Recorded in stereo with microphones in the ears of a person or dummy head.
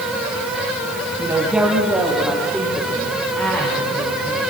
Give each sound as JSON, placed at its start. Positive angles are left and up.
{"t": 1.2, "sound": "a woman speaking", "side_deg": -15, "distance_m": 2.0}